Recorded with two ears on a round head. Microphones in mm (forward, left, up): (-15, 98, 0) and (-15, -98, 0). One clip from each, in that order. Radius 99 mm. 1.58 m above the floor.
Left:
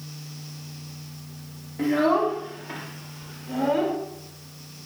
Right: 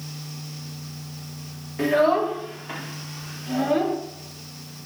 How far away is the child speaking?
About 3 m.